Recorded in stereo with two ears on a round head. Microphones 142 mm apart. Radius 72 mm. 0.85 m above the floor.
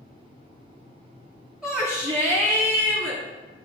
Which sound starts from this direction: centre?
A shout, at 1.6 s.